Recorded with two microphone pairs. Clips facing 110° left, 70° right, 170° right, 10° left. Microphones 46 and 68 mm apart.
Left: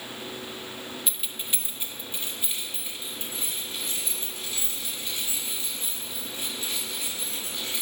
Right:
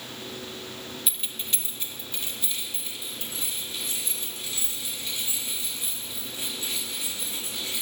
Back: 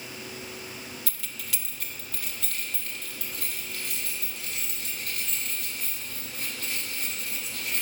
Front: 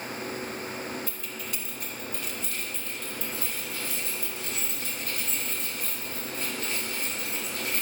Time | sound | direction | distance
1.1 | keys jangling | 160° right | 0.7 m